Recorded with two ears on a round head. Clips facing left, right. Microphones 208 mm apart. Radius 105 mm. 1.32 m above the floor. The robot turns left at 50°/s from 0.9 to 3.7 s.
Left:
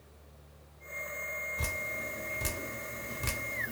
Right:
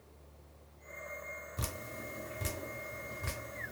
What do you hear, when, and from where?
1.6 s dripping: 35° right (ahead or behind), 0.7 m; by 3.7 s 65° left (ahead or behind), 0.7 m